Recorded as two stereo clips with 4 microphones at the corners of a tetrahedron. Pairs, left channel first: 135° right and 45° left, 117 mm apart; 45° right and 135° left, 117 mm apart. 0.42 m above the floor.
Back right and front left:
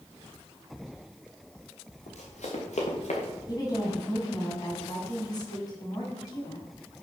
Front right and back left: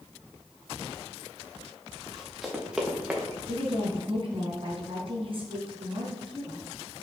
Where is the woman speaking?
170° left, 3.5 m.